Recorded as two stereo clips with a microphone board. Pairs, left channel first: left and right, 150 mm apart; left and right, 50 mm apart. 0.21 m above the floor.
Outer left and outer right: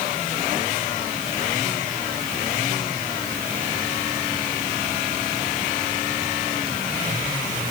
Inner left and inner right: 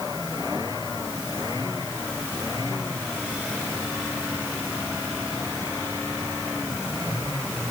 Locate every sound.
Only background noise.